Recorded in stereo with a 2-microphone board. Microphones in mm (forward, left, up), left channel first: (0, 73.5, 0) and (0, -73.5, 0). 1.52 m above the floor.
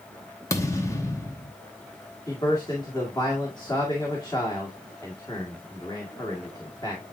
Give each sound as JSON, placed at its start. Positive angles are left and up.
{"t": 0.5, "sound": "a thud", "side_deg": 20, "distance_m": 1.1}
{"t": 2.3, "sound": "a man speaking", "side_deg": 25, "distance_m": 2.0}